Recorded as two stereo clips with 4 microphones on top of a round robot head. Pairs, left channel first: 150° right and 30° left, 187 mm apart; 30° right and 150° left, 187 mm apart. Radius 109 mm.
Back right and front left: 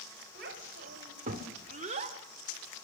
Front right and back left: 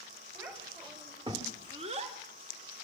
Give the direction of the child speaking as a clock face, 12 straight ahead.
10 o'clock.